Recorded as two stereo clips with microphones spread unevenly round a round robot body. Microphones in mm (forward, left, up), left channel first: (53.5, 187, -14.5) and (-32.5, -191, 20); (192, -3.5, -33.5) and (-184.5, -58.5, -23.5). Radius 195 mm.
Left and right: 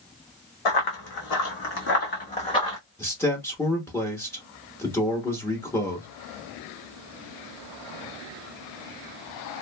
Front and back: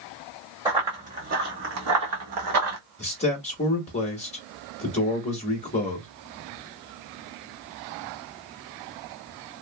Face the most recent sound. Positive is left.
turn(degrees=25)